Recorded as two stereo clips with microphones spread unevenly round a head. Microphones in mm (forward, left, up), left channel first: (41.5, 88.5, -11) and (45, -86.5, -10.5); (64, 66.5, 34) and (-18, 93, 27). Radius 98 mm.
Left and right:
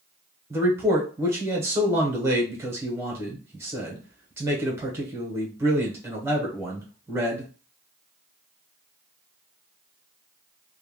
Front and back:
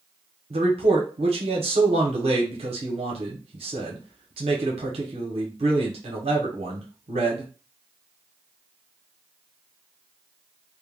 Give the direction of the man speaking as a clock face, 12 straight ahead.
6 o'clock.